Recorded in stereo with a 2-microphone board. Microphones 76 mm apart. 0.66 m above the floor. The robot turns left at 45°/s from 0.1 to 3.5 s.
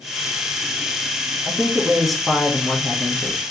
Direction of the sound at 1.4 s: 10° right (ahead or behind).